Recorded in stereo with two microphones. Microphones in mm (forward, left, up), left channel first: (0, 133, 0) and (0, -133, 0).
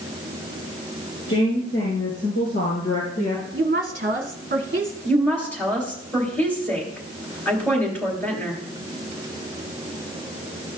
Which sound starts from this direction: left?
A woman speaking, at 1.3 s.